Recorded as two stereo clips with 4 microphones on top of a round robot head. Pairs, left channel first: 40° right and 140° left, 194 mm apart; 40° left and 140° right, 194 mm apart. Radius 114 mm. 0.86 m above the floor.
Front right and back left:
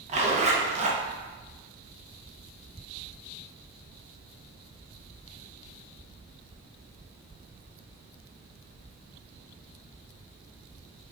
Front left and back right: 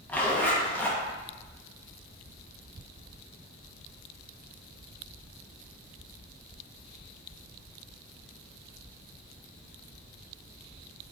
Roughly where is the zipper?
Behind left.